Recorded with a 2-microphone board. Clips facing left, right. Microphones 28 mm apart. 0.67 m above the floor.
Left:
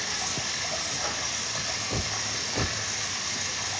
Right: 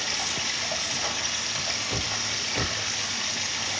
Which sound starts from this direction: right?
Running water, at 0.0 s.